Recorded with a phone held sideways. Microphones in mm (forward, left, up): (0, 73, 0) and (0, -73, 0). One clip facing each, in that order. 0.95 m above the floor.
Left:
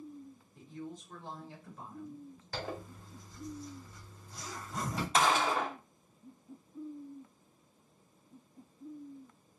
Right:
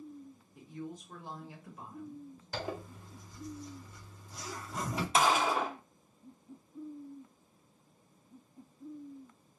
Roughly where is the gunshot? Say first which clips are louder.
Right 1 dB; centre.